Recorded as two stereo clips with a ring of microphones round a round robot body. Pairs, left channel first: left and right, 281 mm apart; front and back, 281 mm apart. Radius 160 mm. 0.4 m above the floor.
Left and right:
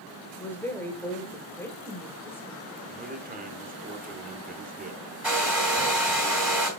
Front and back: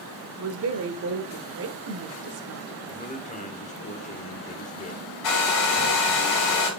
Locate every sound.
0.4 s a woman speaking: 170° left, 1.1 m
2.9 s a man speaking: 50° right, 1.3 m
5.2 s a hair dryer: 5° right, 4 m